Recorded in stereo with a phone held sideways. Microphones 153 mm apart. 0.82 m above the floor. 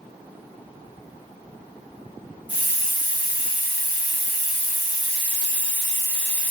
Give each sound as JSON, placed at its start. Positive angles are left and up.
{"t": 2.5, "sound": "a hiss", "side_deg": -10, "distance_m": 1.2}